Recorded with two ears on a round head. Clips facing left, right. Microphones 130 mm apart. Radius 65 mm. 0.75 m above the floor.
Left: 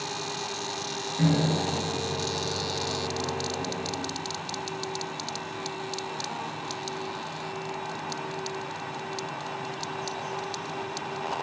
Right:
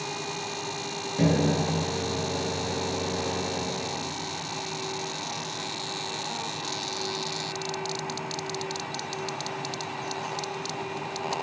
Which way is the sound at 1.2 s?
45° right (ahead or behind).